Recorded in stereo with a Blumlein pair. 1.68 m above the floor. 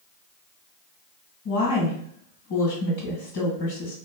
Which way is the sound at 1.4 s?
55° left.